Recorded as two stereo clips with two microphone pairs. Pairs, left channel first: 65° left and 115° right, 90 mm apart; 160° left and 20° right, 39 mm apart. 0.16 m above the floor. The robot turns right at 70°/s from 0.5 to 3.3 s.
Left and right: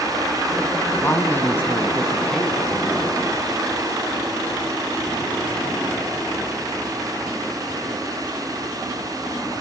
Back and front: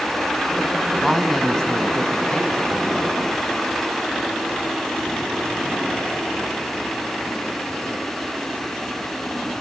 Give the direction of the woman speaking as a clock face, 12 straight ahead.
10 o'clock.